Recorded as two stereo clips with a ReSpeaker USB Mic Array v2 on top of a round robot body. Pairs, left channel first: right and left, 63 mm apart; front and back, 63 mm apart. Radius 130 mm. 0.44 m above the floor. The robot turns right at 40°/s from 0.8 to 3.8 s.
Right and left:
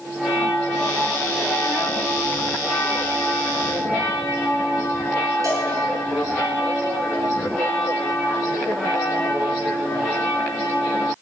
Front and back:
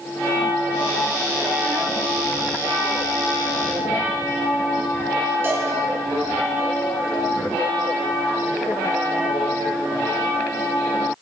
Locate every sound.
5.4 s a cowbell: 125° left, 5.5 m